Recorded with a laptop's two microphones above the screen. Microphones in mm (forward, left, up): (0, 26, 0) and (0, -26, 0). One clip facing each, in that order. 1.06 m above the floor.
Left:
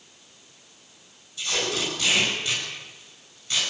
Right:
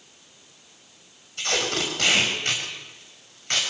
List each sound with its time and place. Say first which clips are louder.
1.4 s tape being pulled: right 2 dB; 55° right (ahead or behind), 7 m